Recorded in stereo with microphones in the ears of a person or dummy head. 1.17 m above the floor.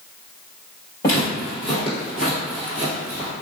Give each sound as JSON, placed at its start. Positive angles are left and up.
{"t": 1.0, "sound": "footsteps", "side_deg": 20, "distance_m": 1.7}